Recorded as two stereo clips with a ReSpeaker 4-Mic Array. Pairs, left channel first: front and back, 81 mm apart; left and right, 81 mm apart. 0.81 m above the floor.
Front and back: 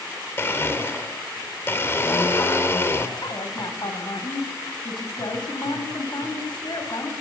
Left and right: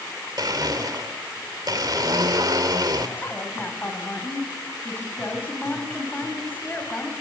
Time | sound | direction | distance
0.4 | a blender | 55° right | 2.5 m
3.2 | a woman speaking | 25° left | 6 m